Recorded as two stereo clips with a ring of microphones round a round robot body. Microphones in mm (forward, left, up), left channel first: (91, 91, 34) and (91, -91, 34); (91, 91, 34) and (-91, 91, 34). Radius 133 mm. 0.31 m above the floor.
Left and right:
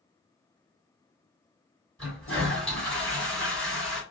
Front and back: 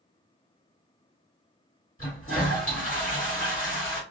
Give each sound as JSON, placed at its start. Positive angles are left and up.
{"t": 2.0, "sound": "a toilet flushing", "azimuth_deg": 5, "distance_m": 1.9}